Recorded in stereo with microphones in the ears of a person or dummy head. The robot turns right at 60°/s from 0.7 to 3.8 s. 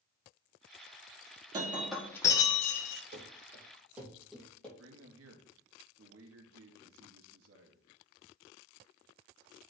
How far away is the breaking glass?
About 1.3 m.